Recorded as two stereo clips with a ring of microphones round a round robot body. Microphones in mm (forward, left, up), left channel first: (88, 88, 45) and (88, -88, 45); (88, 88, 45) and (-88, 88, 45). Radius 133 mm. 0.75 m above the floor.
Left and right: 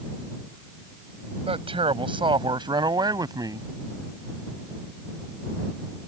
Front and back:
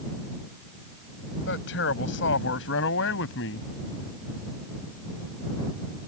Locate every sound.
1.5 s a man speaking: 35° right; by 3.7 s 20° right